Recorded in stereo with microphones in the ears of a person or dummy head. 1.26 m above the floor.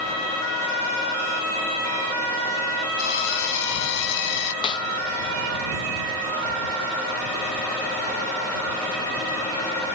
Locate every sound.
3.0 s a drill: 65° left (ahead or behind)
4.6 s a snare drum: 25° left (ahead or behind)